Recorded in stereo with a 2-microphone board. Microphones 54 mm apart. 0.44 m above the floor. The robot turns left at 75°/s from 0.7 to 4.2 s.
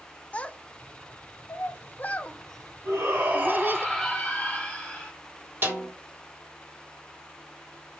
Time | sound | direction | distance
0.3 | a child speaking | 20° left (ahead or behind) | 0.5 m
2.9 | a shout | 95° right | 2.0 m
5.6 | a snare drum | 35° right (ahead or behind) | 1.8 m